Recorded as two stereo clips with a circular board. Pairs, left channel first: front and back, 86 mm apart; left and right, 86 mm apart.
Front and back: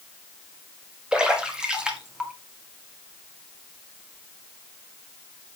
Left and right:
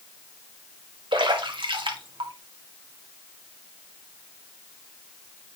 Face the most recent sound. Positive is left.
turn(degrees=-100)